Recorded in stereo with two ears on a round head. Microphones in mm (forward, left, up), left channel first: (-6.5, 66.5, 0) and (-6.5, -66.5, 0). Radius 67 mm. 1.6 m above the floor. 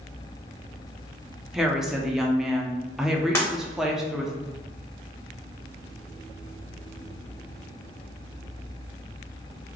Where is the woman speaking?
5° right (ahead or behind), 0.7 m.